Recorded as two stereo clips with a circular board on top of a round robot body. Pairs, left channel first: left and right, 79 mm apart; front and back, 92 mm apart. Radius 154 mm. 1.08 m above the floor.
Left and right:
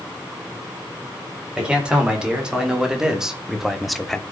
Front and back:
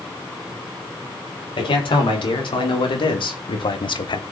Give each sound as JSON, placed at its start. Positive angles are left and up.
{"t": 1.6, "sound": "a man speaking", "azimuth_deg": -15, "distance_m": 4.0}